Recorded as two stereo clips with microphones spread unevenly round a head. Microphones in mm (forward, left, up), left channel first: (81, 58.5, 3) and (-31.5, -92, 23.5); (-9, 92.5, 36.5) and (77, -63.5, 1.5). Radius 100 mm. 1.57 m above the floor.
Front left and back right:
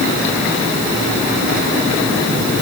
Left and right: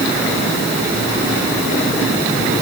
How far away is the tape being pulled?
No tape being pulled in this recording.